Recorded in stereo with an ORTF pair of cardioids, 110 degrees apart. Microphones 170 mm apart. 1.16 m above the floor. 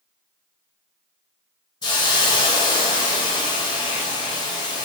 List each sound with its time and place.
1.8 s a hiss: 25° left, 0.8 m